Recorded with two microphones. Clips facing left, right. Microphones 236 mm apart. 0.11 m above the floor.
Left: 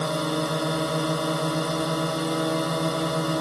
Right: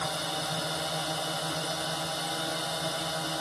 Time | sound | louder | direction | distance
0.0 | a drone | left 11 dB | 65° left (ahead or behind) | ?